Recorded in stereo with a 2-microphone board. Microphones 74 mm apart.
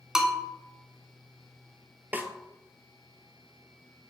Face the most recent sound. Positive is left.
turn(degrees=-25)  # may be behind; listen again after turning